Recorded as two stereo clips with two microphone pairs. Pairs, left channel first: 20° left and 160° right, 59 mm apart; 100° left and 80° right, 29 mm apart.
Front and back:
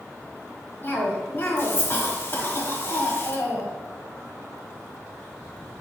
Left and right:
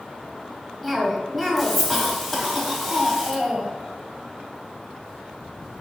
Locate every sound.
0.8 s a cough: 15° left, 1.2 m